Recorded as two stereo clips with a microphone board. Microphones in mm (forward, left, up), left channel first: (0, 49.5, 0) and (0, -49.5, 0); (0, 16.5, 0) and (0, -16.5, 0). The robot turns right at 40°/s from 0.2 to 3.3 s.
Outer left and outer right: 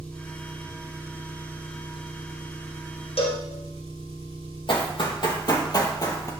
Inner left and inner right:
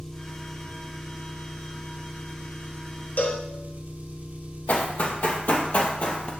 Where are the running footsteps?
55° left (ahead or behind), 2.5 m; by 6.3 s 30° left (ahead or behind), 2 m.